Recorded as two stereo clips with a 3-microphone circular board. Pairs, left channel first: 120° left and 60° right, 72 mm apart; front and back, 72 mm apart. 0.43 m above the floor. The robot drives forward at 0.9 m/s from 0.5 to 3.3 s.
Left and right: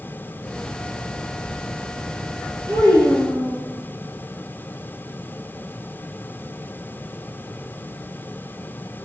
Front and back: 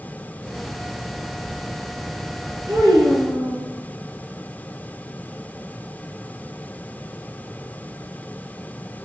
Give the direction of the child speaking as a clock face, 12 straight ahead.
7 o'clock.